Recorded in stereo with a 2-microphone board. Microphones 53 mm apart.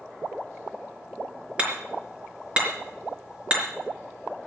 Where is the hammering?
25° right (ahead or behind), 4 m.